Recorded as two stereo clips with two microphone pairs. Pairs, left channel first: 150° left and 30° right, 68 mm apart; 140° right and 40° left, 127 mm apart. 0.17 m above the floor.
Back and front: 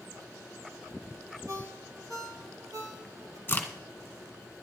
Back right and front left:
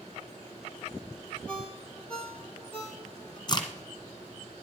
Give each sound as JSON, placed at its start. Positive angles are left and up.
{"t": 1.5, "sound": "a ringtone", "azimuth_deg": -60, "distance_m": 2.0}
{"t": 3.5, "sound": "a crack", "azimuth_deg": -165, "distance_m": 1.2}